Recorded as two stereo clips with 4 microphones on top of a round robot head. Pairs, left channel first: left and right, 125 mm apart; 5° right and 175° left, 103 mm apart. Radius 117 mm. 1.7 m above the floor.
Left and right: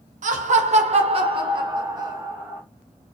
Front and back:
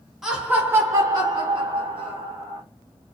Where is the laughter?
100° right, 0.9 m; by 2.6 s 160° right, 1.5 m.